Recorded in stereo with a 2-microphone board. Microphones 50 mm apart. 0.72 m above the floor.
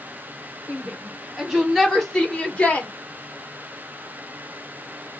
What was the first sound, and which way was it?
A shout, 25° right (ahead or behind).